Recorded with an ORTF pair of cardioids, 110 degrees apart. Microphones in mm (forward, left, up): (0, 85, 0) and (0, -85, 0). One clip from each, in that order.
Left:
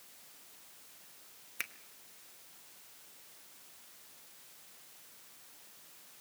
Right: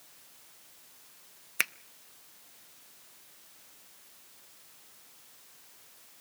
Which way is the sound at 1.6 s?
50° right.